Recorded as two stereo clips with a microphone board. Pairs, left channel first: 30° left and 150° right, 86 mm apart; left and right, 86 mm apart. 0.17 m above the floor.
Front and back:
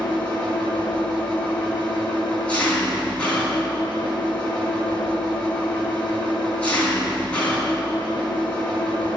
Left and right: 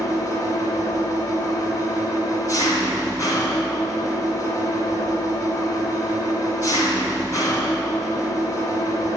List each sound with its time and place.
0.0 s an engine running: 95° left, 1.5 m